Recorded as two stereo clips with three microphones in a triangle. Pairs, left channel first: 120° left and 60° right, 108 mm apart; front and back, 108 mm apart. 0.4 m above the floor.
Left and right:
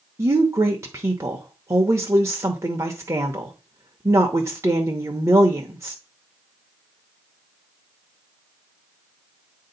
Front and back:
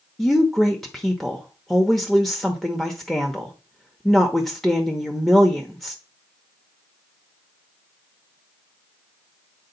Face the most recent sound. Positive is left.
turn(degrees=-85)